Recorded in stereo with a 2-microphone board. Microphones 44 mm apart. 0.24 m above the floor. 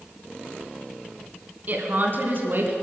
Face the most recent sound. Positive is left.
turn(degrees=-55)  # may be behind; listen again after turning